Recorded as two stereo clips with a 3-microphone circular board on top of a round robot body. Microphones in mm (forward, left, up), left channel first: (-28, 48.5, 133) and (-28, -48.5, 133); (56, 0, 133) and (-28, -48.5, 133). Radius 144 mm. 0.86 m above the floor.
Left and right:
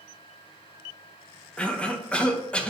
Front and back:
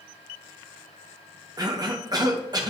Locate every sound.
1.6 s a cough: 170° left, 1.8 m